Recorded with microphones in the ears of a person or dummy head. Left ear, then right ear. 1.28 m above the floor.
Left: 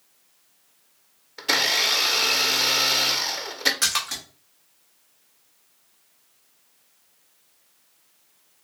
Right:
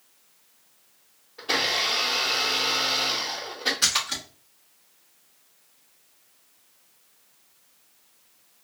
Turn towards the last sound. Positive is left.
turn(degrees=35)  # may be behind; listen again after turning